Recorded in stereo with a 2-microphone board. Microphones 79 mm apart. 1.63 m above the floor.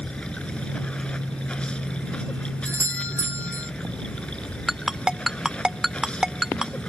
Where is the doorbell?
35° right (ahead or behind).